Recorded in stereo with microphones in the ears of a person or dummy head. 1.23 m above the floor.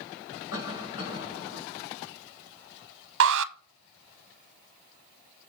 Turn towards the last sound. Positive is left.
turn(degrees=-70)  # may be behind; listen again after turning